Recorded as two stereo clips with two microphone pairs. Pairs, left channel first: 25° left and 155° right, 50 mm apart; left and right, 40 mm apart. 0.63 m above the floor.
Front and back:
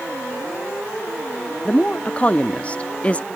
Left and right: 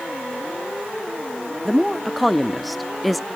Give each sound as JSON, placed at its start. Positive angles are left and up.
{"t": 1.6, "sound": "a woman speaking", "azimuth_deg": -10, "distance_m": 0.6}